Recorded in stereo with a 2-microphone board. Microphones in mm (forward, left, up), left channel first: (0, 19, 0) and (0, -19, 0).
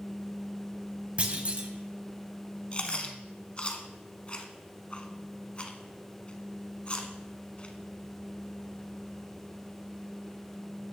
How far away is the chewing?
About 0.8 m.